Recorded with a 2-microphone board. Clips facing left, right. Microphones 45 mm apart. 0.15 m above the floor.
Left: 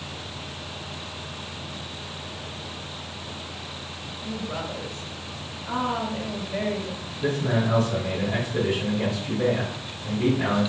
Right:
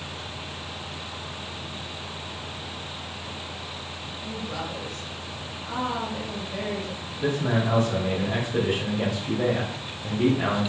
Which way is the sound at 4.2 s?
20° left (ahead or behind).